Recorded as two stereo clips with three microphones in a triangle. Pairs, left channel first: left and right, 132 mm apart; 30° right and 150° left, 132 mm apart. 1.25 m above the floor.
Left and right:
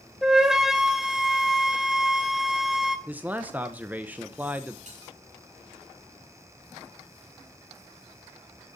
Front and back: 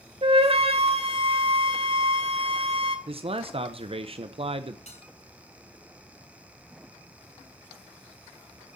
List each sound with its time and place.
0.2 s a flute: 175° right, 1.6 m
3.1 s a man speaking: 165° right, 0.8 m
4.9 s a bell: 65° right, 6.5 m